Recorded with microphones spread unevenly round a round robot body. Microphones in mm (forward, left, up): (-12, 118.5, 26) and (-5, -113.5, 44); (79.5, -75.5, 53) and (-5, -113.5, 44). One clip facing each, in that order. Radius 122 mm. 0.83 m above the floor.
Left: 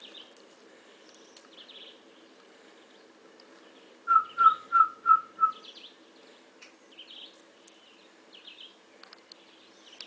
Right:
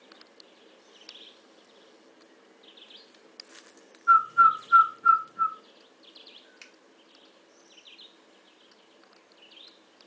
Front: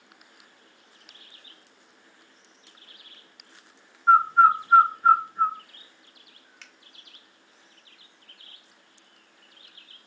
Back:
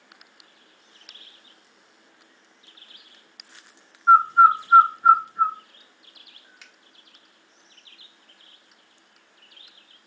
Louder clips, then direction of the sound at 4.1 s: Right 2 dB, back 2 dB; 80° right.